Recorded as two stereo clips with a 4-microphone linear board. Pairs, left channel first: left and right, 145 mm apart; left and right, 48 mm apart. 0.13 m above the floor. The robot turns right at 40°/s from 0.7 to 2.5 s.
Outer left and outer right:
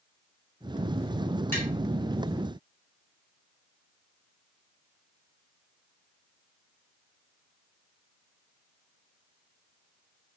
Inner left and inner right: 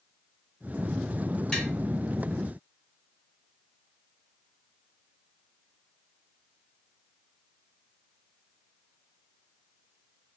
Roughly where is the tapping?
Centre.